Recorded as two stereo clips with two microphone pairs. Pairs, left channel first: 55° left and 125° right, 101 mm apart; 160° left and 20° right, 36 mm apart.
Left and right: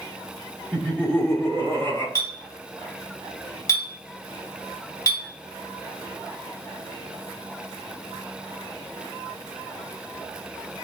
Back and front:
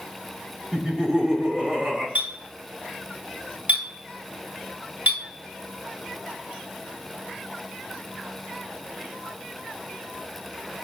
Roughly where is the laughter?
Ahead.